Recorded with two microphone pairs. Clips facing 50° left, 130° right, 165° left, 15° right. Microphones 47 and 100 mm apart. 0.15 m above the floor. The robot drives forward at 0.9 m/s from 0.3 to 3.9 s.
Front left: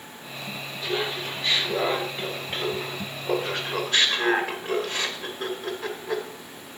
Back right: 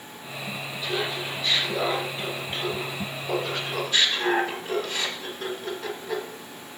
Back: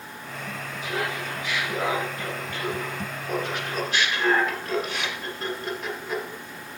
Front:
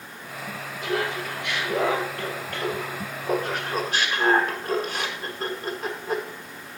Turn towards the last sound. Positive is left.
turn(degrees=20)